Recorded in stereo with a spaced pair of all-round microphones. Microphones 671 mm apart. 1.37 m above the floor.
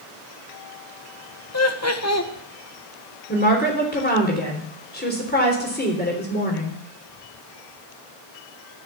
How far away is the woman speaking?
About 3.5 m.